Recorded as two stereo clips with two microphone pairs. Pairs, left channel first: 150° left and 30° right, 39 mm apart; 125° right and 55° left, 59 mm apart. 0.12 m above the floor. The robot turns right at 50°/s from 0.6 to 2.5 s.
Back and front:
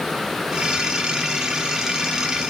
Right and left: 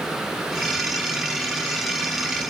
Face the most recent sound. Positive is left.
No sound to turn to.